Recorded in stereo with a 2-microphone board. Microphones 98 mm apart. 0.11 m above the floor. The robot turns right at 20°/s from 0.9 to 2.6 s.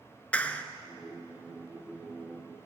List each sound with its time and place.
0.3 s a clap: 15° left (ahead or behind), 1.3 m